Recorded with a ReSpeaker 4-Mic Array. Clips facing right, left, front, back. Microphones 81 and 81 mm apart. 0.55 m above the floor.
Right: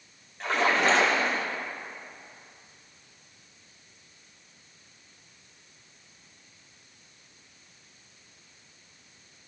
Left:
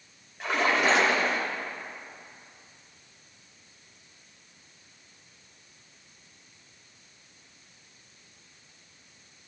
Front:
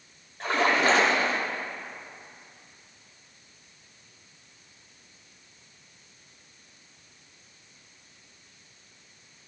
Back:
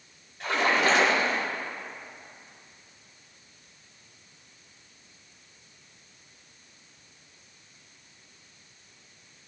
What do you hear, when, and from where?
0.4 s a splash: 10° left, 1.6 m